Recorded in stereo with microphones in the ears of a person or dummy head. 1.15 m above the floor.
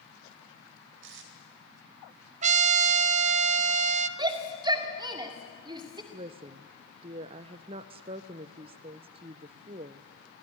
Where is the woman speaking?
30° right (ahead or behind), 0.5 m.